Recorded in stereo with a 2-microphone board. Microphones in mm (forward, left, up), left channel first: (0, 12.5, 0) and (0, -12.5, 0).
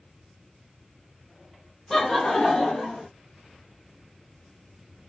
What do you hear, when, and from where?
1.9 s laughter: 15° left (ahead or behind), 0.5 m; by 3.1 s 65° left (ahead or behind), 1.0 m